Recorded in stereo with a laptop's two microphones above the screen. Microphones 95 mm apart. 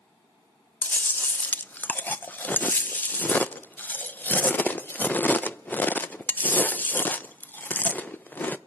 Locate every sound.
0.8 s chewing: 20° left (ahead or behind), 0.5 m